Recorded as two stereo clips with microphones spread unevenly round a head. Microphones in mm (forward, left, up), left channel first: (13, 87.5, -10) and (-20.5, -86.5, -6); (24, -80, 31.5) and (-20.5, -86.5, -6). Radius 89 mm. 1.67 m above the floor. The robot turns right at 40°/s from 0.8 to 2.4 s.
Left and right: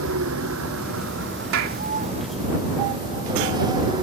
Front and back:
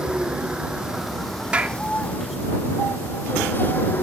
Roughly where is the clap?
Right.